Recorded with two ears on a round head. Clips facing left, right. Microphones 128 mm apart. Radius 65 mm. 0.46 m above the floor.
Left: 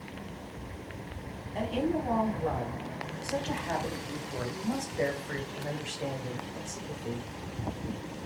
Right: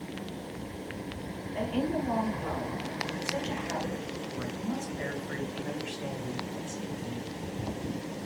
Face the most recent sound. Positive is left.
turn(degrees=10)  # may be behind; listen again after turning